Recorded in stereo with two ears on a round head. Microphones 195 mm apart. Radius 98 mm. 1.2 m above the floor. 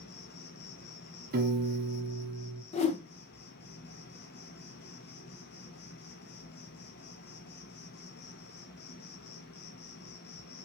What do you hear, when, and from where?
0.0 s an insect: 50° left (ahead or behind), 1.1 m
1.3 s a piano: 45° right (ahead or behind), 0.7 m
2.7 s a whoosh: 30° left (ahead or behind), 0.8 m